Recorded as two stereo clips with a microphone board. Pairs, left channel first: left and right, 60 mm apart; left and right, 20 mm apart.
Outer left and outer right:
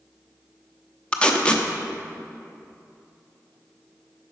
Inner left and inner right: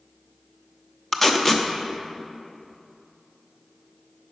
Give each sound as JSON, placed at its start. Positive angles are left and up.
{"t": 1.1, "sound": "tape being pulled", "side_deg": 20, "distance_m": 0.8}